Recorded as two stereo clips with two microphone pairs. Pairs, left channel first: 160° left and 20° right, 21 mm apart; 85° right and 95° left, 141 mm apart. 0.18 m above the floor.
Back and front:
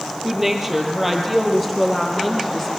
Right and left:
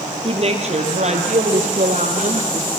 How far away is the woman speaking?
About 3.5 m.